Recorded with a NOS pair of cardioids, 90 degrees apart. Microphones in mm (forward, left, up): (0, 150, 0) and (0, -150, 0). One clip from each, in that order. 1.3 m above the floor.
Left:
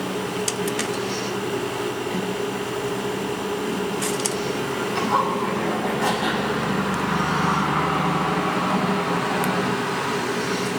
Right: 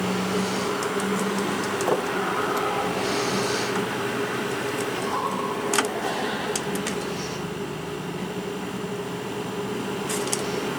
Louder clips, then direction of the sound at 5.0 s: Left 5 dB; 65° left.